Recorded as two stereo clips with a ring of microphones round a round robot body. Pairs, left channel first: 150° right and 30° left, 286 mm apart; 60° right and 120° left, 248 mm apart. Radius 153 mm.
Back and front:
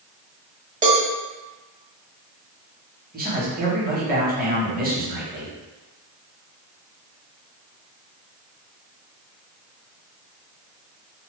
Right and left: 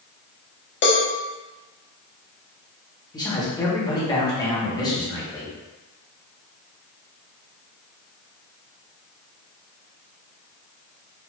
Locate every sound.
0.8 s a cowbell: 30° right, 0.9 m
3.1 s a man speaking: straight ahead, 1.2 m